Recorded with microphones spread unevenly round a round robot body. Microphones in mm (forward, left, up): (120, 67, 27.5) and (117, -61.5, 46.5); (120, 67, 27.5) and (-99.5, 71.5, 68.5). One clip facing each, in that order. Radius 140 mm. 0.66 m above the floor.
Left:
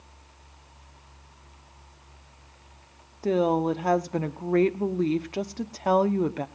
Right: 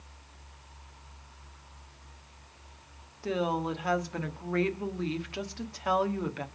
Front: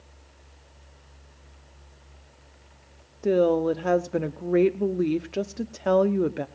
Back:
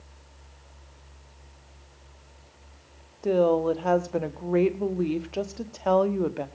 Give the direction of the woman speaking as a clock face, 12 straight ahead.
10 o'clock.